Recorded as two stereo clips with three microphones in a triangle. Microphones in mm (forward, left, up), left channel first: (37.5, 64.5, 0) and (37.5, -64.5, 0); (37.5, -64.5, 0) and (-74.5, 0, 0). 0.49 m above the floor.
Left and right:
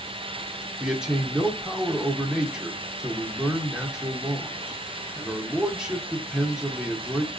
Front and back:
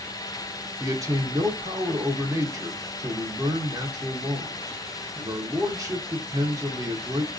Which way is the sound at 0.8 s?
170° right.